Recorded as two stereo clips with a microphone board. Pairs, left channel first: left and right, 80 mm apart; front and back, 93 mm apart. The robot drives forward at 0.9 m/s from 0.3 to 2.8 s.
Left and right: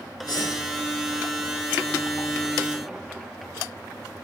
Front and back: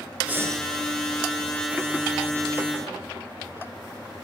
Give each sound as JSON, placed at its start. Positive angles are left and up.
{"t": 0.3, "sound": "breathing", "azimuth_deg": 110, "distance_m": 0.5}